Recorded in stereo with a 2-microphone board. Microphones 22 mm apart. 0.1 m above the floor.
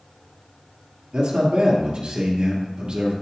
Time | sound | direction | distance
1.1 | a man speaking | 45° right (ahead or behind) | 2 m